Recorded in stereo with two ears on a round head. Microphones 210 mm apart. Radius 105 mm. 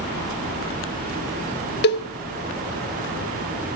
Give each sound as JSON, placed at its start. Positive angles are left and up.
{"t": 1.8, "sound": "a cowbell", "side_deg": 45, "distance_m": 0.9}